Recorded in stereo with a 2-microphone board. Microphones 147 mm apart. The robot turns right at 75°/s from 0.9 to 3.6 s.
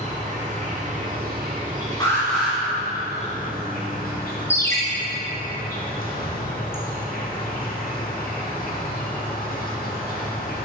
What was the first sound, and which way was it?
An insect, 125° right.